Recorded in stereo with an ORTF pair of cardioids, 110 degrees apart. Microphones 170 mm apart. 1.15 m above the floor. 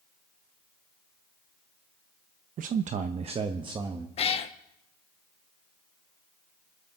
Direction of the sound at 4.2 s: 40° left.